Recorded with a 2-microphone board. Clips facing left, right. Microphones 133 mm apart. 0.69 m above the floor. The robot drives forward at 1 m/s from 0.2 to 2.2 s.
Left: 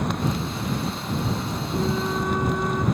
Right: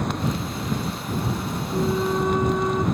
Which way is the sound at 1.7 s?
15° right (ahead or behind).